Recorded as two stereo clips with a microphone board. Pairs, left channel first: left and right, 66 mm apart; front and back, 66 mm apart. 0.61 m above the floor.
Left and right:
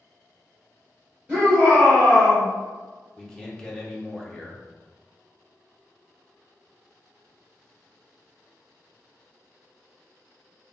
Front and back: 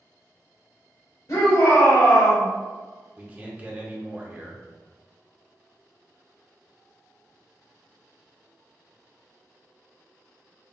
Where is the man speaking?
150° left, 0.8 m.